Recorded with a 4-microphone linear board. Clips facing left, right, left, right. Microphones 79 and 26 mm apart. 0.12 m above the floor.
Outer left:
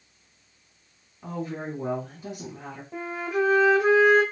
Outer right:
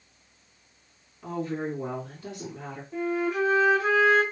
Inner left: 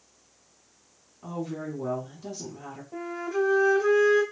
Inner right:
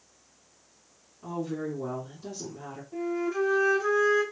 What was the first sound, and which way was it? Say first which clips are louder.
A woman speaking: outer right 2 dB, inner right 1 dB; 15° left (ahead or behind).